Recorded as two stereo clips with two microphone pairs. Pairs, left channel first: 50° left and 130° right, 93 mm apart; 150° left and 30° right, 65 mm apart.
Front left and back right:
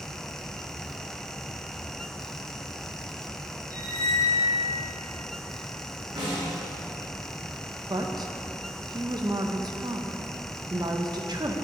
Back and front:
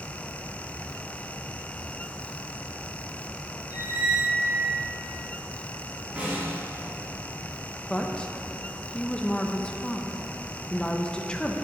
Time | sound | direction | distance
3.7 | a squeak | 85° right | 2 m
6.2 | a snare drum | 100° right | 1.9 m
7.9 | a woman speaking | 140° right | 0.6 m